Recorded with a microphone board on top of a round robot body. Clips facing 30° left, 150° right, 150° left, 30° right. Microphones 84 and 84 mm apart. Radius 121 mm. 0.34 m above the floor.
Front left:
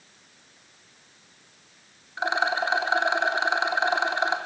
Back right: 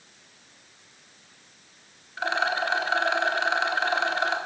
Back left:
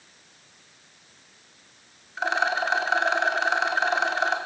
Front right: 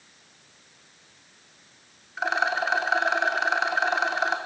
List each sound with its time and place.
2.2 s a rattle: 55° left, 1.4 m